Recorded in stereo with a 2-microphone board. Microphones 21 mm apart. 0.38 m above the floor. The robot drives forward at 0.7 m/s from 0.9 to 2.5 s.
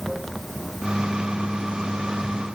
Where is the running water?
10° left (ahead or behind); by 2.5 s 5° left (ahead or behind).